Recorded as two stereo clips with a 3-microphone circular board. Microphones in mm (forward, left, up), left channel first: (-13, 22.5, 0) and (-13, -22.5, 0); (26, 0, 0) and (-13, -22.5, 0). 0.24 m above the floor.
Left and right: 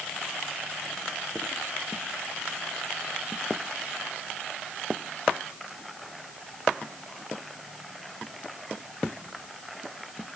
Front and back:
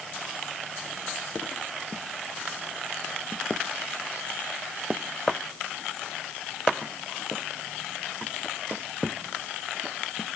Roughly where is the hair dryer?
No hair dryer in this recording.